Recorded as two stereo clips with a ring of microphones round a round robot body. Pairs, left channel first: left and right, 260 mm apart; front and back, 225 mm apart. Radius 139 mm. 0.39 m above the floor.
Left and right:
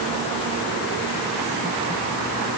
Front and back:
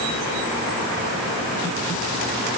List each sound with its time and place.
Only background noise.